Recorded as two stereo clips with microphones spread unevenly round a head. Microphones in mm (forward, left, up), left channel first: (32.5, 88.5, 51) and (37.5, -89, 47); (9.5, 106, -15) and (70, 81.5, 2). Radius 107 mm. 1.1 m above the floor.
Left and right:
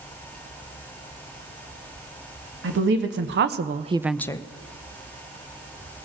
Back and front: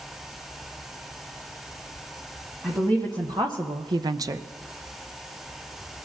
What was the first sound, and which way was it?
A woman speaking, 100° right.